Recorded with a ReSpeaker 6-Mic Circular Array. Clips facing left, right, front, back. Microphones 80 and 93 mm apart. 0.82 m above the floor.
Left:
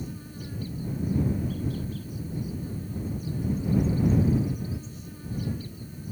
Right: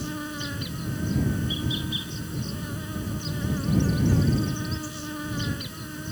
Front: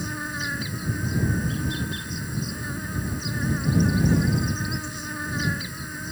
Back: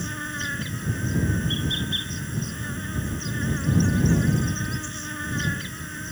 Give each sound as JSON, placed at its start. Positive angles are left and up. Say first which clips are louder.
{"t": 0.0, "sound": "an insect", "louder": "right 7 dB, front 1 dB", "azimuth_deg": -85}